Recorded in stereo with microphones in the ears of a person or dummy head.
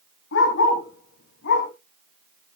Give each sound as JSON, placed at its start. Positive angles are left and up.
{"t": 0.3, "sound": "a dog barking", "side_deg": 70, "distance_m": 5.5}